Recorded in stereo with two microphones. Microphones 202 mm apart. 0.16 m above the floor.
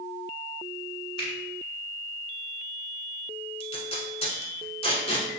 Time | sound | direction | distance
1.2 | a finger snap | 25° left (ahead or behind) | 1.4 m
3.6 | tape being pulled | 30° left (ahead or behind) | 0.8 m